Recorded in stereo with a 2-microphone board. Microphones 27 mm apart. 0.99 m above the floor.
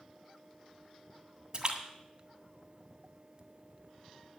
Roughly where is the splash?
Right.